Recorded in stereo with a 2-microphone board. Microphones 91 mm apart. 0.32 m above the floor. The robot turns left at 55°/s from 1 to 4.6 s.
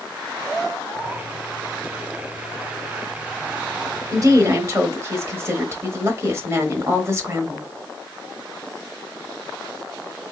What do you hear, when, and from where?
4.1 s a woman speaking: 40° right (ahead or behind), 1.2 m; by 7.7 s 35° right (ahead or behind), 1.2 m